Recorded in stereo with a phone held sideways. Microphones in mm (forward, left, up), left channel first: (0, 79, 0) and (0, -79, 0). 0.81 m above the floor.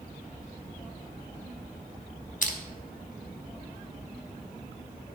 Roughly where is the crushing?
Left.